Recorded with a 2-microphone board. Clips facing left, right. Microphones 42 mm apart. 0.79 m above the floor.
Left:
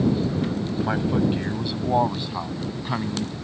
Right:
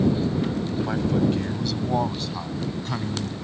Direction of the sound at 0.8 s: 20° left (ahead or behind).